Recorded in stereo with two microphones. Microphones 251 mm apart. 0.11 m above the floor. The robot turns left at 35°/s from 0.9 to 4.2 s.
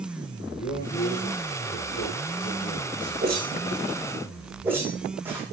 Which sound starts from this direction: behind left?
A man speaking, at 0.6 s.